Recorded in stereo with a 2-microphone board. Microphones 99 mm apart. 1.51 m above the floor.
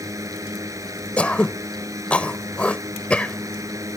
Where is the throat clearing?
10° left (ahead or behind).